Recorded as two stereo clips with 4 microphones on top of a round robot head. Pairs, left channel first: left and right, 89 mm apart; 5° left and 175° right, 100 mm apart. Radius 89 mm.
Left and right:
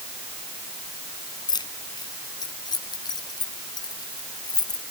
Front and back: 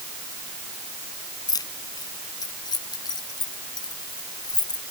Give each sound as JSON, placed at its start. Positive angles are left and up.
{"t": 1.5, "sound": "keys jangling", "azimuth_deg": 55}